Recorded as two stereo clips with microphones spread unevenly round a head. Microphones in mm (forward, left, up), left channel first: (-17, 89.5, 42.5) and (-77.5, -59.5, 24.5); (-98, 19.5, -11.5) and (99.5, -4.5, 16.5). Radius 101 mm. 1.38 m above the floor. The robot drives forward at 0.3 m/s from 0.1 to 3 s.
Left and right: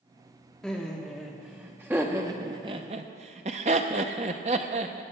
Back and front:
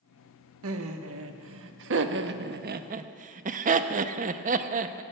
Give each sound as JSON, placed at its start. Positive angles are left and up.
{"t": 0.6, "sound": "laughter", "azimuth_deg": -20, "distance_m": 1.1}